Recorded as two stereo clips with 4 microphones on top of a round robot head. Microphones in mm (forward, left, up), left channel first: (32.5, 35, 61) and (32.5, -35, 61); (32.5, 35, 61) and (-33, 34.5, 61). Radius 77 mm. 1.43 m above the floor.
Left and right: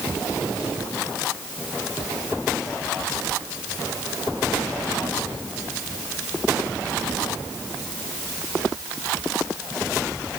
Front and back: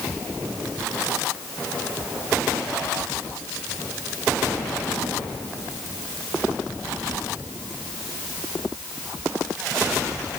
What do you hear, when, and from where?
Only background noise.